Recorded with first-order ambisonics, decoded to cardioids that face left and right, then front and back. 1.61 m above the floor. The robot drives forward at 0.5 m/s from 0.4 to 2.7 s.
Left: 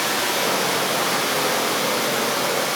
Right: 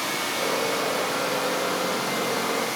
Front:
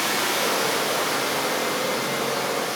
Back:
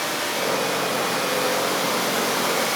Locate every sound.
0.0 s running water: 55° left, 1.0 m; by 2.8 s 130° left, 1.1 m